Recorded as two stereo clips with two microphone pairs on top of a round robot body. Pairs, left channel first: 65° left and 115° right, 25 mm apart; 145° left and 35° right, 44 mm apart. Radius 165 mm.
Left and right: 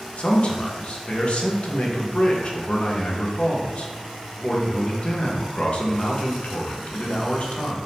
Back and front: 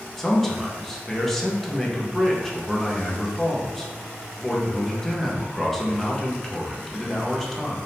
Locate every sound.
0.2 s a man speaking: 65° left, 1.1 m